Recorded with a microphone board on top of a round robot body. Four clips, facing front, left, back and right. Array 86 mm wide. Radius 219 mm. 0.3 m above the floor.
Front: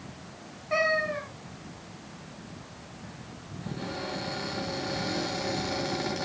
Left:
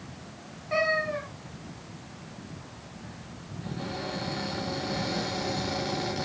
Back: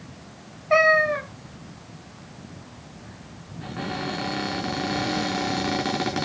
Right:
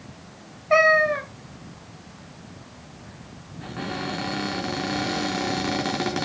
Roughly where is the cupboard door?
Behind right.